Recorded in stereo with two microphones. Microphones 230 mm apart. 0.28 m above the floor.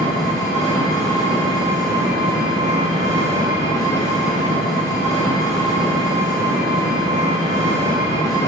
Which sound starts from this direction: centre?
An engine running, at 0.0 s.